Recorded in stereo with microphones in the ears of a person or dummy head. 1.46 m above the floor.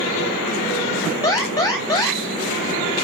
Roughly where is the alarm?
Left.